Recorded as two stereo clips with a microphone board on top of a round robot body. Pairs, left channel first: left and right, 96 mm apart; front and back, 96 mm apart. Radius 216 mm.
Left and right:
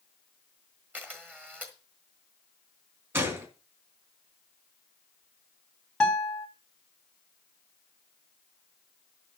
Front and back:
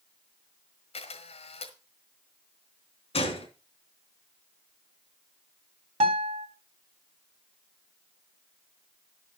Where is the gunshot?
25° right, 2.5 m.